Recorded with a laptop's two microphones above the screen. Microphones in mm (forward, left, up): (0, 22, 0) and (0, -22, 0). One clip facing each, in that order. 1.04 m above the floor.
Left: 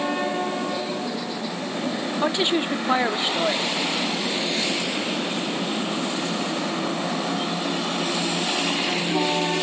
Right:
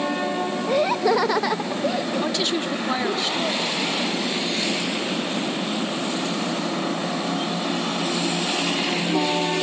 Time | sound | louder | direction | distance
0.7 | laughter | right 8 dB | 45° right (ahead or behind) | 0.5 m
2.2 | a woman speaking | left 2 dB | 20° left (ahead or behind) | 2 m